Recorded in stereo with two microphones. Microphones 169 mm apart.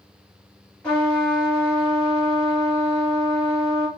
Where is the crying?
No crying in this recording.